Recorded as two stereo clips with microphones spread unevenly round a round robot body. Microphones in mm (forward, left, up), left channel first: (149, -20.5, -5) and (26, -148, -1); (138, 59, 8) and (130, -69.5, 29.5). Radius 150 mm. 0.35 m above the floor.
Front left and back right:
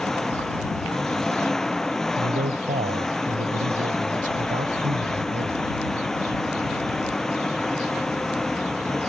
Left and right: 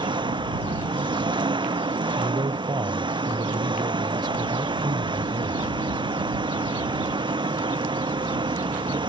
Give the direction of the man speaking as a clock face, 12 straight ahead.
5 o'clock.